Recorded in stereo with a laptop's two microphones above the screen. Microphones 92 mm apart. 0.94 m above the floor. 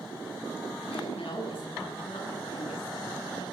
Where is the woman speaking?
80° left, 9.5 m.